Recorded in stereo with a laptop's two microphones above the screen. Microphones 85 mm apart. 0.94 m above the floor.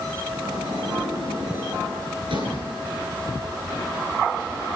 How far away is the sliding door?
About 9.5 m.